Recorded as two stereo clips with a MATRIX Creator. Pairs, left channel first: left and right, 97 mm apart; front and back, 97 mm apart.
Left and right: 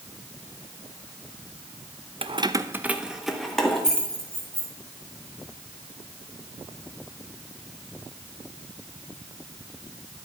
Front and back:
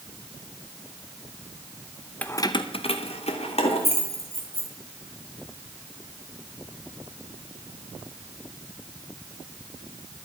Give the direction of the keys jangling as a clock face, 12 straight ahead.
3 o'clock.